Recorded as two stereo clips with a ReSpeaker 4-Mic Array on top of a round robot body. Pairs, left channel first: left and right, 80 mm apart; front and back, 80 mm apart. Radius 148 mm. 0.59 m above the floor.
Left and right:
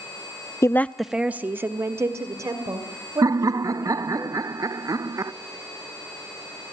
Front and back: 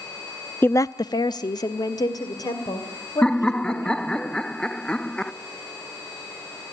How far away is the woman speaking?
About 0.7 m.